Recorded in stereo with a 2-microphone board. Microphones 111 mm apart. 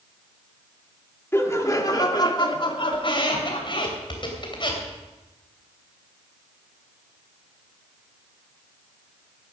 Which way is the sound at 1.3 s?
25° left (ahead or behind).